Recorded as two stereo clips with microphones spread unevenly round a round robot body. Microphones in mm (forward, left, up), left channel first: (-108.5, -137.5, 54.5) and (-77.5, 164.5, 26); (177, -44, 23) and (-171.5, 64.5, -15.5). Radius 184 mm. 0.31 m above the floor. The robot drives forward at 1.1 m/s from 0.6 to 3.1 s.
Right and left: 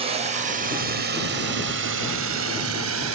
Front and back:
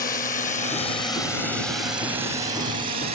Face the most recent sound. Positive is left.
turn(degrees=95)